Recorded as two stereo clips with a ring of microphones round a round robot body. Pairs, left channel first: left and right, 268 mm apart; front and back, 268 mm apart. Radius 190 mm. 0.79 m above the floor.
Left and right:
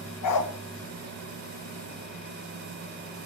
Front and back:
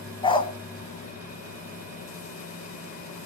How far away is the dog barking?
About 2 m.